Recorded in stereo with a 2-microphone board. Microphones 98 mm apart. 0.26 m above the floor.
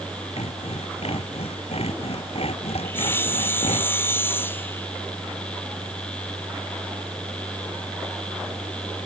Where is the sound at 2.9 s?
20° left (ahead or behind).